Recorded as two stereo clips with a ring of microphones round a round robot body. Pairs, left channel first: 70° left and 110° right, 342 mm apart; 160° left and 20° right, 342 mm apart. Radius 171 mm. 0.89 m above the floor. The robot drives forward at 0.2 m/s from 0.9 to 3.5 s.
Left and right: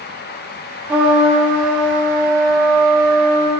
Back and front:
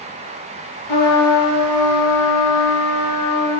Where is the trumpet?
160° left, 1.4 m; by 3.5 s 165° left, 1.9 m.